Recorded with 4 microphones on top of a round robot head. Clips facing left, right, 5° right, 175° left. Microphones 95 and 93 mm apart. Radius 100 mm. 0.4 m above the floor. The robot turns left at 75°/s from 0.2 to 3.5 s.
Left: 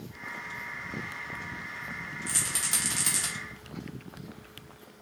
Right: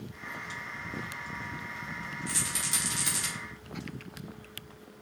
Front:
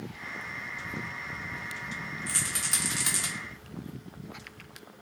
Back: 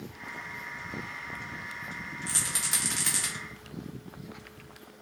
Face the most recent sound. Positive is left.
turn(degrees=30)